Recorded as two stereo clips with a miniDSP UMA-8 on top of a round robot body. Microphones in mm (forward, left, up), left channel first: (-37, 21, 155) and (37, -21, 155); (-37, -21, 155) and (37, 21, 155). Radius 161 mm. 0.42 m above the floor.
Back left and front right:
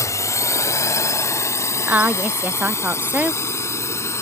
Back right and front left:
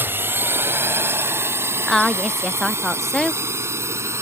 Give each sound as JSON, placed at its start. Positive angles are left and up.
{"t": 0.0, "sound": "a drone", "azimuth_deg": 95}
{"t": 1.9, "sound": "a woman speaking", "azimuth_deg": -65}